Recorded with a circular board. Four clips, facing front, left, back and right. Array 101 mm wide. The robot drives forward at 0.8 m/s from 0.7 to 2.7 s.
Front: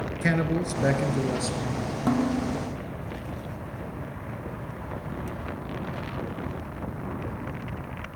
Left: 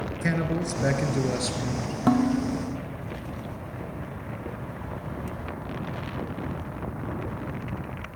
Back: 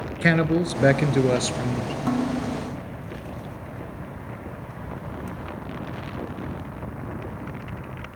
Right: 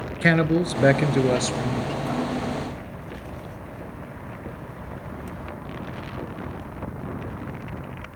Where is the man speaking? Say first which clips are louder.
Right 8 dB, back 5 dB; 120° right, 1.5 m; by 2.0 s 150° right, 2 m.